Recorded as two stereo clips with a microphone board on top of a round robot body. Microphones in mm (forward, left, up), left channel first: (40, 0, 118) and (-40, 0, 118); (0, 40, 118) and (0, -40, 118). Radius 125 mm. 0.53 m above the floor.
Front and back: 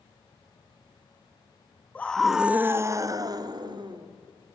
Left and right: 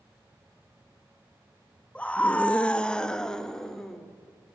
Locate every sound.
1.9 s a scream: 35° left, 1.2 m; by 4.1 s 175° left, 2.5 m